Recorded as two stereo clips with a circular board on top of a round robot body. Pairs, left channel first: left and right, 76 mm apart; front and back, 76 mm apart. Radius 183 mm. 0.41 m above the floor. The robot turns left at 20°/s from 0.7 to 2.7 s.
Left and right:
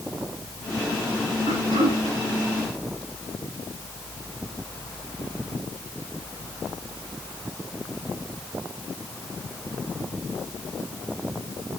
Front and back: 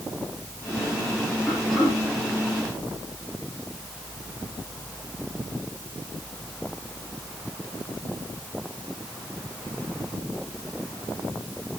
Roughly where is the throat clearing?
Right.